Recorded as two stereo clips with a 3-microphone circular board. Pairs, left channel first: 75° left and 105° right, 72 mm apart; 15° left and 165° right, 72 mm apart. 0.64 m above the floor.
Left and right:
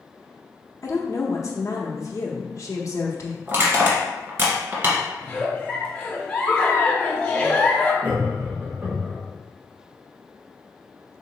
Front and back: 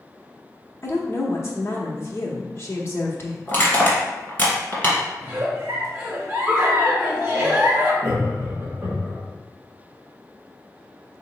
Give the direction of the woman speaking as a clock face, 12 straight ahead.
10 o'clock.